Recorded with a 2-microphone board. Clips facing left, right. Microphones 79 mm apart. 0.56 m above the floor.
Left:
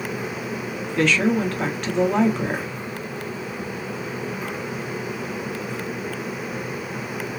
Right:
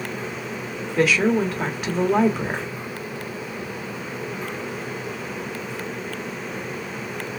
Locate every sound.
1.0 s a woman speaking: 5° right (ahead or behind), 1.2 m